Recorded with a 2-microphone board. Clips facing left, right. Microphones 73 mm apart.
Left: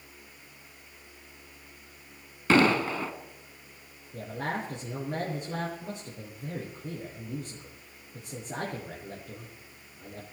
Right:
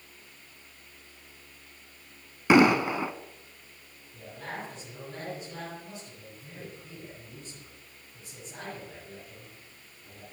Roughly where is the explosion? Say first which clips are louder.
Right 3 dB; centre.